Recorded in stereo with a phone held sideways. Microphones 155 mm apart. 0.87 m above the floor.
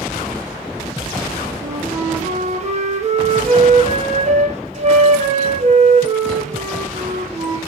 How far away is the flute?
About 1.3 m.